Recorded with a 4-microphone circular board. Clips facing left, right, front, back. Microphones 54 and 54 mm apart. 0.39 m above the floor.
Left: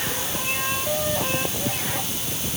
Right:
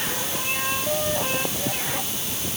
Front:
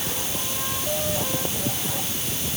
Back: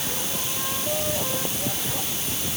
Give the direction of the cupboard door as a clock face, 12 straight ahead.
I don't hear a cupboard door.